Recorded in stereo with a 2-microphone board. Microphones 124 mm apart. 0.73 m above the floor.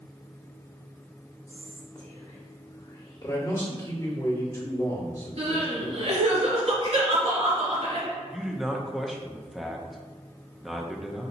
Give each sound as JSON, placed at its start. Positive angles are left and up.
{"t": 1.5, "sound": "whispering", "side_deg": 30, "distance_m": 1.5}
{"t": 3.2, "sound": "a man speaking", "side_deg": 25, "distance_m": 1.7}
{"t": 5.4, "sound": "crying", "side_deg": -60, "distance_m": 1.9}
{"t": 8.3, "sound": "a man speaking", "side_deg": -5, "distance_m": 0.5}